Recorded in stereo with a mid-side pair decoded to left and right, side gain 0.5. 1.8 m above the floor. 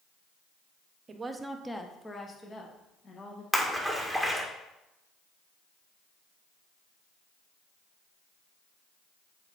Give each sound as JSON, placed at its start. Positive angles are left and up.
{"t": 1.1, "sound": "a woman speaking", "azimuth_deg": -35, "distance_m": 1.0}
{"t": 3.5, "sound": "a splash", "azimuth_deg": 5, "distance_m": 2.0}